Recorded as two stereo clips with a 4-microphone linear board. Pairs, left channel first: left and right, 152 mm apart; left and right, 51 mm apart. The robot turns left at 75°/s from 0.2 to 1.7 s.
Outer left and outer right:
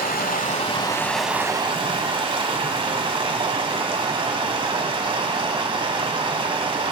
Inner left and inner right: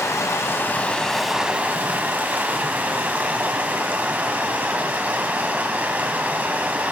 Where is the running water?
75° left, 1.0 m; by 6.9 s 35° right, 1.0 m.